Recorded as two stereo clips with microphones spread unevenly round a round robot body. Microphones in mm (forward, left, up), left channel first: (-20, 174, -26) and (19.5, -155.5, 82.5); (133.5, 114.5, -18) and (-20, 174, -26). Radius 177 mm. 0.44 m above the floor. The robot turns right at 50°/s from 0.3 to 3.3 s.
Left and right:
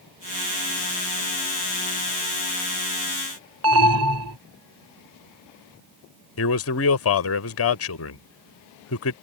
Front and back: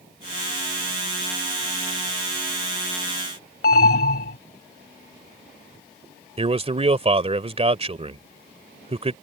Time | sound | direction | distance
3.6 | an alarm | 30° right | ?
6.4 | a man speaking | 115° left | ?